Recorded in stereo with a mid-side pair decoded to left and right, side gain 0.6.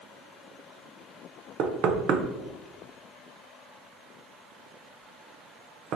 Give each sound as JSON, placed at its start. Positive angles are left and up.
{"t": 1.6, "sound": "knocking", "azimuth_deg": -55, "distance_m": 0.5}